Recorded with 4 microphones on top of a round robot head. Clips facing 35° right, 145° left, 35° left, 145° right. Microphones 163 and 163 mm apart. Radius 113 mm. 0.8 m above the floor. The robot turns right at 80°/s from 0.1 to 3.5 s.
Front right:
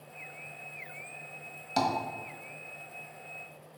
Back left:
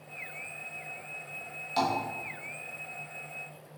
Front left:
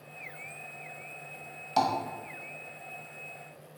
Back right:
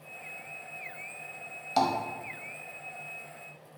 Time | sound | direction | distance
1.8 | tapping | 60° right | 1.2 m